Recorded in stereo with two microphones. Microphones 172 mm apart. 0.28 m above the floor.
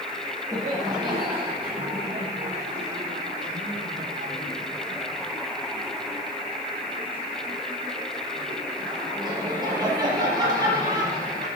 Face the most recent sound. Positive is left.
turn(degrees=-25)  # may be behind; listen again after turning